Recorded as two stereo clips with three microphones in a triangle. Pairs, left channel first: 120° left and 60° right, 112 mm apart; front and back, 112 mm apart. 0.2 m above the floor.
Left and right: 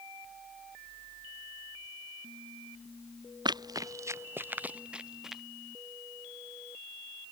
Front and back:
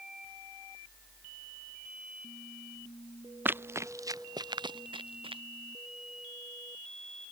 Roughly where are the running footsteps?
Right.